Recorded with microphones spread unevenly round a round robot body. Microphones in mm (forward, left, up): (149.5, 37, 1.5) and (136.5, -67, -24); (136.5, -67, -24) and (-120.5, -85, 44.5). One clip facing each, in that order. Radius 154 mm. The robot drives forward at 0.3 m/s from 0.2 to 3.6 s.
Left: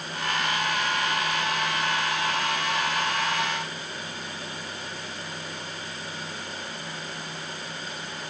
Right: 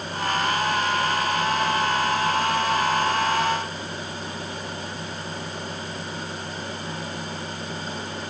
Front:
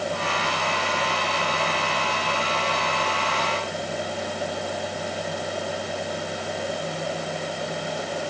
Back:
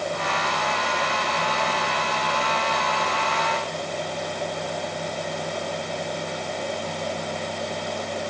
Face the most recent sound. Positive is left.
No sound to turn to.